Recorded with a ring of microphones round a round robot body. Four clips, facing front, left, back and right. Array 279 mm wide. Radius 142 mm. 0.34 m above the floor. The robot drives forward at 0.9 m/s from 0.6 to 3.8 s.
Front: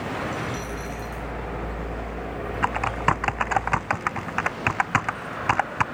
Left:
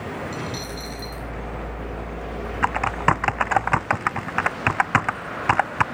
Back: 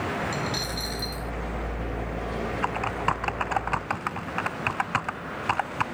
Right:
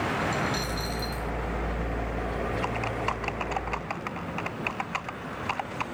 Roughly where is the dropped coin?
Behind.